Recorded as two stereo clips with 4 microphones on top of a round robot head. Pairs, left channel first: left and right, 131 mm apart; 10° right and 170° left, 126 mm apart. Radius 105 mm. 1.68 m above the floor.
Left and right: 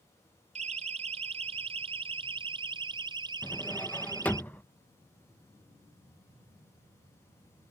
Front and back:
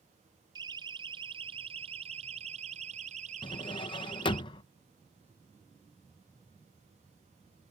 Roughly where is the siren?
Behind right.